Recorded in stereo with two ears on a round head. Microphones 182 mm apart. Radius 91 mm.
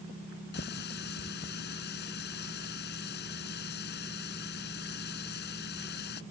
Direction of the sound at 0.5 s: 55° left (ahead or behind).